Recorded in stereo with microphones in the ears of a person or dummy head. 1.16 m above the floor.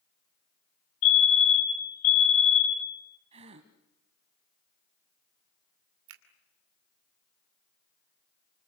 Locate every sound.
1.0 s a fire alarm: 50° left (ahead or behind), 8 m
3.3 s a gasp: 30° right (ahead or behind), 1.3 m
6.1 s a finger snap: 80° right, 2.5 m